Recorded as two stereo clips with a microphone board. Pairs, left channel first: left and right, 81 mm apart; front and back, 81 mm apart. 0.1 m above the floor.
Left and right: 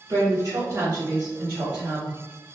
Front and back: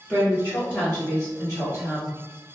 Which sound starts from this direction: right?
A woman speaking, at 0.1 s.